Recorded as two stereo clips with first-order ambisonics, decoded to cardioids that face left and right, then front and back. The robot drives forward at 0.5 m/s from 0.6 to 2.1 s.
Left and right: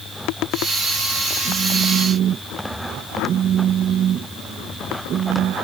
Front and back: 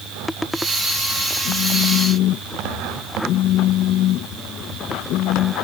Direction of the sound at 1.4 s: 35° right.